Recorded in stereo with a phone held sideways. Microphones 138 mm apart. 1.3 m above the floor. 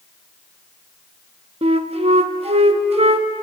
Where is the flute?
45° right (ahead or behind), 1.1 m.